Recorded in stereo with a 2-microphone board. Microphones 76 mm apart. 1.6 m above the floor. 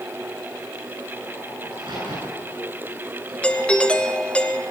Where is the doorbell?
15° left (ahead or behind), 0.9 m.